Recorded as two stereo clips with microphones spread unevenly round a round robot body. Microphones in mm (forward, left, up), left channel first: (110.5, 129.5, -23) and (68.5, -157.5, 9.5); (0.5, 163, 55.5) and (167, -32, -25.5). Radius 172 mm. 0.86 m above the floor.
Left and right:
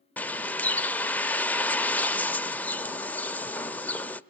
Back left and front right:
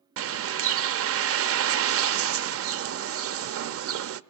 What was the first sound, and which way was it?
A bird, 5° right.